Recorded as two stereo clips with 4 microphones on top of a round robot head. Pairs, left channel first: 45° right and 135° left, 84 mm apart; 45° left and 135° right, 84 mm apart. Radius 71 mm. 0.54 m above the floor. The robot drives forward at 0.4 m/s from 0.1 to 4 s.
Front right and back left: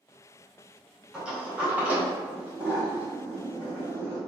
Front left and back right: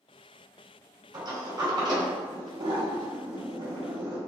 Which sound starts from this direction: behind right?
A sliding door, at 1.1 s.